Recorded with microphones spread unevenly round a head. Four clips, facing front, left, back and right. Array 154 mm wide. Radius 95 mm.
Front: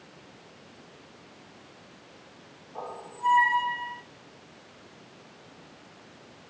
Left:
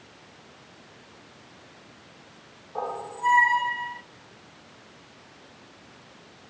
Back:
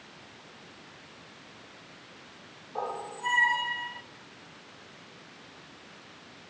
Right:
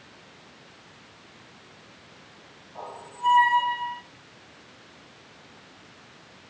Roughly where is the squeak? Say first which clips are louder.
Left 6 dB, back 3 dB; behind left.